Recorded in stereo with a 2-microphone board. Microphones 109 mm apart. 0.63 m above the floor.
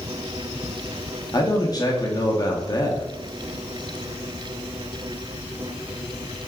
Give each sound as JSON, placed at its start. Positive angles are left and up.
{"t": 1.3, "sound": "a man speaking", "side_deg": 35, "distance_m": 0.8}